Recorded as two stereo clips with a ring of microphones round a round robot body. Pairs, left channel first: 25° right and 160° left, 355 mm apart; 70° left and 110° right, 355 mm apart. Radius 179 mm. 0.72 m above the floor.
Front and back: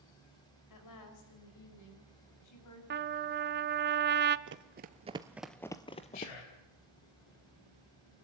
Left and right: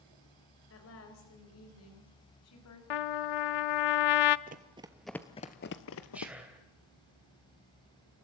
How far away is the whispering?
About 3.5 m.